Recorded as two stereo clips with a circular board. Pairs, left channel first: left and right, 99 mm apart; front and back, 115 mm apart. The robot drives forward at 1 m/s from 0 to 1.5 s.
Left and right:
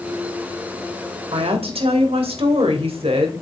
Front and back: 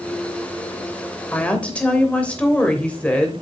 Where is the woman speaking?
75° right, 2.5 m; by 3.3 s 80° right, 2.5 m.